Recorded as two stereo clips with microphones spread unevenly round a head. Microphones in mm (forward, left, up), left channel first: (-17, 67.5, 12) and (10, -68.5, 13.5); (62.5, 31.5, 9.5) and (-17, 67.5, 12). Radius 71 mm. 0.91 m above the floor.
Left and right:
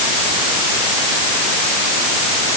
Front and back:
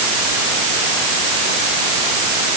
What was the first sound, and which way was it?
Only background noise.